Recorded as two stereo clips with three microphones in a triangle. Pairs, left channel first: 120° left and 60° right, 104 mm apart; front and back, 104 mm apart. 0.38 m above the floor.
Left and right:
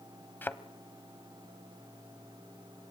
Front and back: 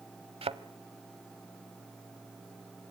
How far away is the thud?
About 0.9 m.